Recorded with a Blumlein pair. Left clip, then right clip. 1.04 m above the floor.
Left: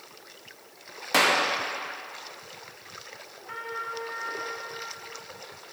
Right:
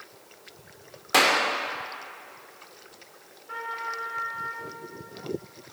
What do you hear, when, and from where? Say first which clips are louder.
1.1 s a clap: right 1 dB; 5° right, 1.1 m
3.5 s a trumpet: right 2 dB; 45° left, 3 m